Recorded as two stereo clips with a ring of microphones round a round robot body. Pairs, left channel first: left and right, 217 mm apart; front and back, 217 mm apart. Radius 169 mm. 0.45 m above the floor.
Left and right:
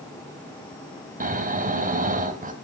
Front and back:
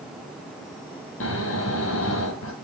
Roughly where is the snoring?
Ahead right.